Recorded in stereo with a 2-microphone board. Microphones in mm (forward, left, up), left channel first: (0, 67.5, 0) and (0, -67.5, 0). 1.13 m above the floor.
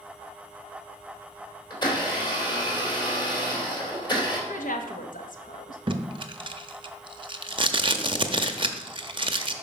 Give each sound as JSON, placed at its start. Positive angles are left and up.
{"t": 1.7, "sound": "a blender", "side_deg": 35, "distance_m": 3.0}
{"t": 4.5, "sound": "a woman speaking", "side_deg": 80, "distance_m": 1.1}
{"t": 5.9, "sound": "tape being pulled", "side_deg": -40, "distance_m": 0.6}